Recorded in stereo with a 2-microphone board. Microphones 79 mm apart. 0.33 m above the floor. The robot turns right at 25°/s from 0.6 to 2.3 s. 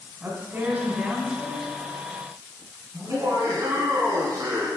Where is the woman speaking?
25° right (ahead or behind), 3 m; by 1.7 s centre (ahead or behind), 3 m.